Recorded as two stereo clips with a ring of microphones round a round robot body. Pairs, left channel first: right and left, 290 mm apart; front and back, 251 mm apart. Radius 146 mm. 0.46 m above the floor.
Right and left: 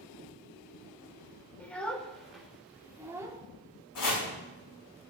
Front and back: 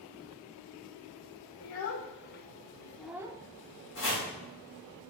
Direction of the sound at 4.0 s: 55° right.